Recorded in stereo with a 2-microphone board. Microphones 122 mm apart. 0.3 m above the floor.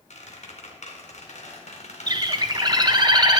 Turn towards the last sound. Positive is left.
turn(degrees=-35)  # may be behind; listen again after turning